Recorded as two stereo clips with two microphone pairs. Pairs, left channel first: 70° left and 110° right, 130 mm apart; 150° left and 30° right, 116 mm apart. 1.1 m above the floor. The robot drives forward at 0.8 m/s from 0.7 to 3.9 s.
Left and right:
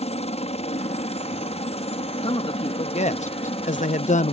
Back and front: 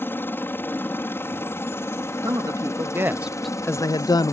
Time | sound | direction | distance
0.0 | a helicopter | 80° left | ?
2.2 | a man speaking | 25° left | ?